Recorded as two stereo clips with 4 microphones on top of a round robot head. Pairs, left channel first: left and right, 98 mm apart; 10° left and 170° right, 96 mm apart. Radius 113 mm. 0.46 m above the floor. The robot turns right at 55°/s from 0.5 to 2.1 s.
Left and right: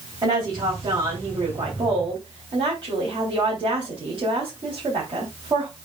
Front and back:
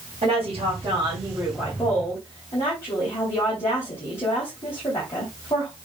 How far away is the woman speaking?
About 3.5 m.